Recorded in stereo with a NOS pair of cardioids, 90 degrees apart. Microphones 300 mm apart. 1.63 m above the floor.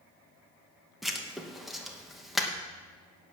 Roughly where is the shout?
No shout in this recording.